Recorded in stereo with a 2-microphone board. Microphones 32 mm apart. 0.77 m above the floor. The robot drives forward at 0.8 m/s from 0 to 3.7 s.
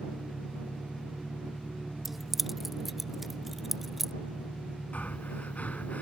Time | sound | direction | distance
0.0 | an engine running | 65° left (ahead or behind) | ?
2.0 | keys jangling | 5° right (ahead or behind) | ?
4.9 | breathing | 60° left (ahead or behind) | ?